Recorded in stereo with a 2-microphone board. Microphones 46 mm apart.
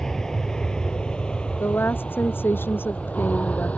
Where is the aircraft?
10° left (ahead or behind); by 3.8 s 30° left (ahead or behind).